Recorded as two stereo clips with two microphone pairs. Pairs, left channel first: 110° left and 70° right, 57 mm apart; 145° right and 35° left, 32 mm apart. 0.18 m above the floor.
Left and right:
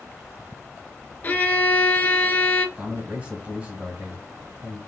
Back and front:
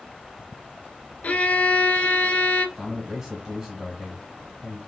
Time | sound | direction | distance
1.2 | a violin | 170° left | 0.6 m
2.8 | a man speaking | 35° right | 1.6 m